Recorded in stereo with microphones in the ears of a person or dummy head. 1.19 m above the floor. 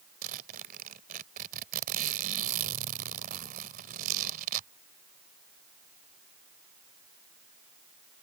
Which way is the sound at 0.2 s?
45° right (ahead or behind).